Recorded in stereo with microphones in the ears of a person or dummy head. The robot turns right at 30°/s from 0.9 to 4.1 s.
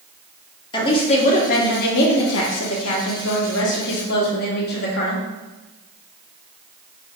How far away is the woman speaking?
About 0.9 m.